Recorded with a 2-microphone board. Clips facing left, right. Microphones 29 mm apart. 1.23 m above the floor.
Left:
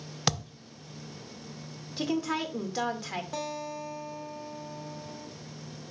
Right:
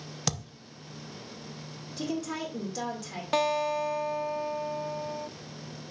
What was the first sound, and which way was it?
A thud, 30° left (ahead or behind).